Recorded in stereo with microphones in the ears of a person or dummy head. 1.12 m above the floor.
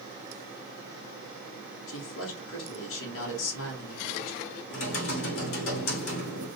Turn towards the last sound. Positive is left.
turn(degrees=65)  # may be behind; listen again after turning